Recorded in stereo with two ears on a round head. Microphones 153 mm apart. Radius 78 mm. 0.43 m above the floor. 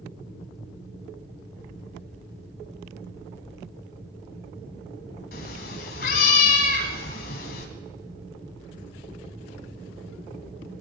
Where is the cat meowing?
55° left (ahead or behind), 1.6 m.